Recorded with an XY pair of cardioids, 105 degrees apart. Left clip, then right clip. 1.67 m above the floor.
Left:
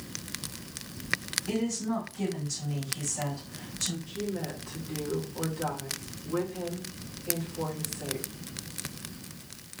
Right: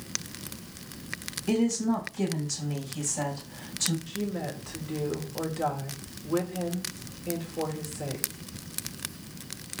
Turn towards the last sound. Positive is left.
turn(degrees=-60)